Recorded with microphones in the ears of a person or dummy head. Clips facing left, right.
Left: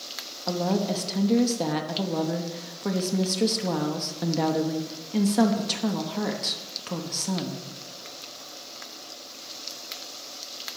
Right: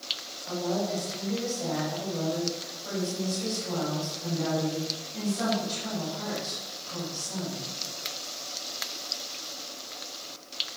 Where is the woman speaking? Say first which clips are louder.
Left 4 dB; 85° left, 1.0 m.